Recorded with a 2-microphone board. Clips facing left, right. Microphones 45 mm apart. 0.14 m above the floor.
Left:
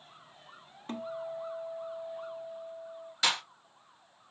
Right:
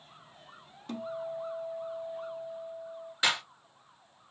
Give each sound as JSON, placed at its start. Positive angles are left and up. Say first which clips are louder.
{"t": 0.9, "sound": "a guitar", "louder": "right 1 dB", "side_deg": 30, "distance_m": 0.6}
{"t": 3.2, "sound": "a clap", "louder": "right 1 dB", "side_deg": -20, "distance_m": 2.0}